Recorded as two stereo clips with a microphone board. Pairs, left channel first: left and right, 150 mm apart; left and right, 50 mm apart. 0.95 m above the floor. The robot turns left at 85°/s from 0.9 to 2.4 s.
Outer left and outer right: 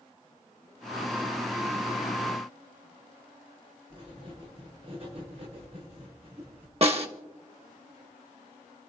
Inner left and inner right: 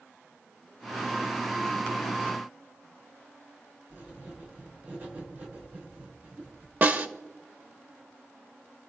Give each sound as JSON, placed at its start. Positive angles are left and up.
{"t": 3.9, "sound": "writing", "side_deg": -40, "distance_m": 9.0}
{"t": 6.8, "sound": "a snare drum", "side_deg": -40, "distance_m": 1.3}